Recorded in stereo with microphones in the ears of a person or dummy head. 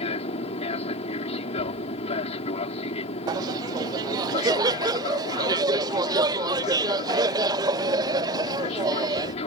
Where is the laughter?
25° right (ahead or behind).